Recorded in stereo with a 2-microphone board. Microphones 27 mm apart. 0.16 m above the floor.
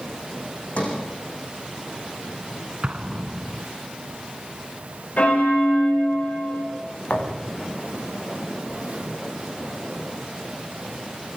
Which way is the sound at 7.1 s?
85° left.